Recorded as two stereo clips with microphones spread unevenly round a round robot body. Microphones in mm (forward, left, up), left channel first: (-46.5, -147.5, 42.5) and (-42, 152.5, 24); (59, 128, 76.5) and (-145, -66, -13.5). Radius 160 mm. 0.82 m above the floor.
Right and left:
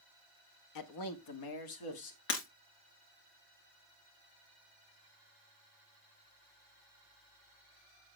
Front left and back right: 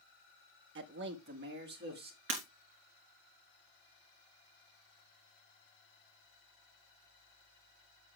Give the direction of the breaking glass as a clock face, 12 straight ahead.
3 o'clock.